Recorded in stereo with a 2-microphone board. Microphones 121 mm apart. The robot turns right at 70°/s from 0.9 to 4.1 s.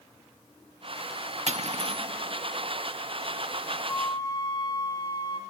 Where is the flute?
20° left (ahead or behind), 1.3 m; by 5.4 s 35° left (ahead or behind), 1.3 m.